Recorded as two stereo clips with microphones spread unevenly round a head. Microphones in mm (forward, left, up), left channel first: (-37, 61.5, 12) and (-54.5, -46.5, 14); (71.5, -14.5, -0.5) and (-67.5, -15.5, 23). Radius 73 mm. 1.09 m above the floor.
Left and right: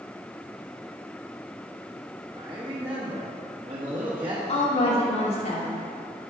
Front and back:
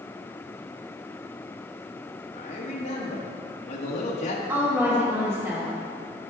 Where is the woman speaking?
105° left, 3 m.